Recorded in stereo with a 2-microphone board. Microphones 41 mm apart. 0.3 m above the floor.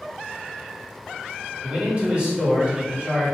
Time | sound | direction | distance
1.6 | a man speaking | 35° right (ahead or behind) | 1.9 m